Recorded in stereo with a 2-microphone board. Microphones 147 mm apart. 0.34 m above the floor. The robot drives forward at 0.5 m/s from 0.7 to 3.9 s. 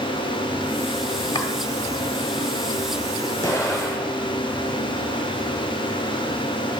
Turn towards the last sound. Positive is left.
turn(degrees=20)  # may be behind; listen again after turning